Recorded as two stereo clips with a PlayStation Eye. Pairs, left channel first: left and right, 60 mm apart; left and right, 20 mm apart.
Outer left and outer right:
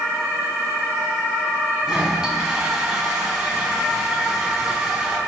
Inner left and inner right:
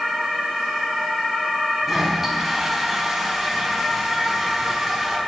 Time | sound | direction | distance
1.8 | a toilet flushing | 10° right (ahead or behind) | 4.5 m